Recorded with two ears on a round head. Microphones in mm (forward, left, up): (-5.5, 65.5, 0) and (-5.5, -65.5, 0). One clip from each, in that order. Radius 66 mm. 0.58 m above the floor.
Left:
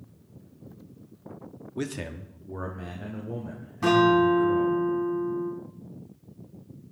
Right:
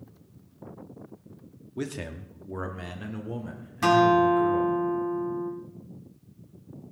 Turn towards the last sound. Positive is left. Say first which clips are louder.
# right 1 dB
turn(degrees=-50)  # may be behind; listen again after turning